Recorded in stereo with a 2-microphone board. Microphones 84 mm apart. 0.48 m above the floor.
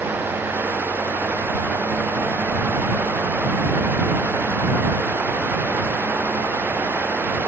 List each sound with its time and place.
Only background noise.